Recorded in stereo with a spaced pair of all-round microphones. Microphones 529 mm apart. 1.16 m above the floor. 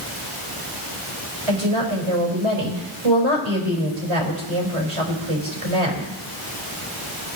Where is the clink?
I don't hear a clink.